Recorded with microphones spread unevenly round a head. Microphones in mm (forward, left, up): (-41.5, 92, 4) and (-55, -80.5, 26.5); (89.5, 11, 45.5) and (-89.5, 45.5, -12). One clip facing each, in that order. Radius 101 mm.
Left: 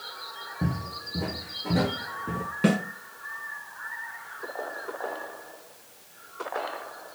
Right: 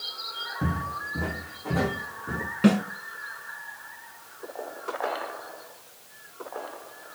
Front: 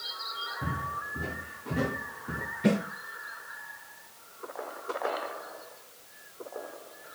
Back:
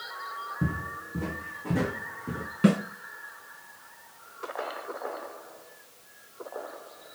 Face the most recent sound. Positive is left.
turn(degrees=170)